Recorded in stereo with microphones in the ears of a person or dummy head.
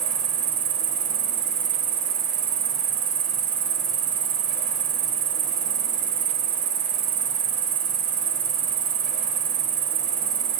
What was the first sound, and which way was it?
An insect, 30° right (ahead or behind).